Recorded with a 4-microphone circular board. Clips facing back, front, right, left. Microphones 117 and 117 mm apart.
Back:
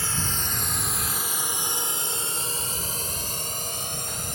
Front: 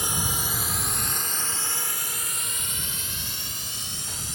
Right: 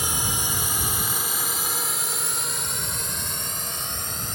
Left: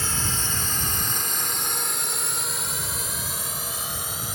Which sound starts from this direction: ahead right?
A drone, at 0.0 s.